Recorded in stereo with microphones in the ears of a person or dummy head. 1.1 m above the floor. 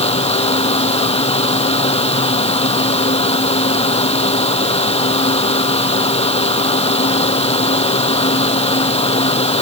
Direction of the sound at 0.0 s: 30° left (ahead or behind).